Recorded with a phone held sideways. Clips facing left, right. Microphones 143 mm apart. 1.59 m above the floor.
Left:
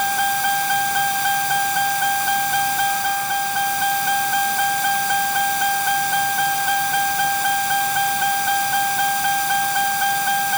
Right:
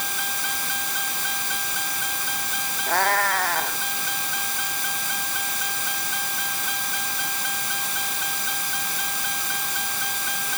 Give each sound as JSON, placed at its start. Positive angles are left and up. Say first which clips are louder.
{"t": 0.0, "sound": "a vehicle", "louder": "left 14 dB", "side_deg": 60}
{"t": 2.9, "sound": "a cat meowing", "louder": "left 1 dB", "side_deg": -80}